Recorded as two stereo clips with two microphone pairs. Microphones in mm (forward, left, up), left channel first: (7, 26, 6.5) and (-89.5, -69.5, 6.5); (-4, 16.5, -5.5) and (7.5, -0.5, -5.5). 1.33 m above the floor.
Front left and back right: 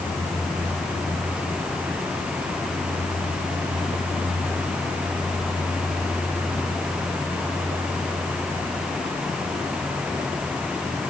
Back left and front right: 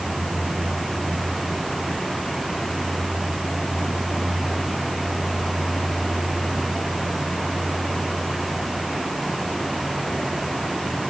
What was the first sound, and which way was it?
Only background noise.